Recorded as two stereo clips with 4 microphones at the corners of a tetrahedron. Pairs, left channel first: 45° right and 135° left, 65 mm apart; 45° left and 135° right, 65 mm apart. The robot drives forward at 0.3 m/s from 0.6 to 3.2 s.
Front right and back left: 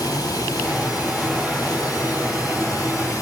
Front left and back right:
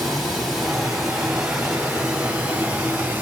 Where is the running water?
45° right, 1.7 m; by 3.2 s 75° right, 1.3 m.